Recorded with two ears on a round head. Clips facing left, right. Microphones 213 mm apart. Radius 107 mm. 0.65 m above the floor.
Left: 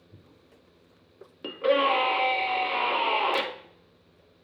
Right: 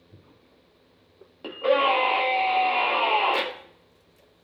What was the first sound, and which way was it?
A scream, 25° left (ahead or behind).